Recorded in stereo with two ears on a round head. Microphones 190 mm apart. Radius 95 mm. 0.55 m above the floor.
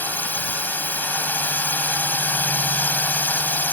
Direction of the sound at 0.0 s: 10° left (ahead or behind).